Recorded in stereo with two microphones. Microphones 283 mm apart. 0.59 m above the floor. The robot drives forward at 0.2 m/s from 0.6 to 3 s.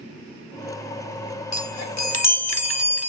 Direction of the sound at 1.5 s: 70° left (ahead or behind).